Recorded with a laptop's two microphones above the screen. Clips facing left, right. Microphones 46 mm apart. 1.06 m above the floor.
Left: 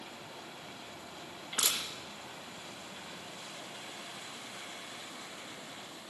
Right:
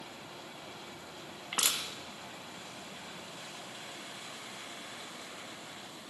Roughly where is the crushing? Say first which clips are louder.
Right 1 dB; right.